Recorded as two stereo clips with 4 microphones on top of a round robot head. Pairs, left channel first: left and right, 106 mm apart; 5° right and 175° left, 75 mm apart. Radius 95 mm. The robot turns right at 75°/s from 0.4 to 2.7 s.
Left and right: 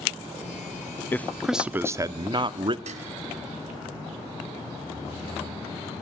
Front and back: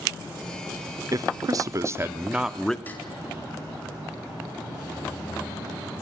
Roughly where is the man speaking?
Behind left.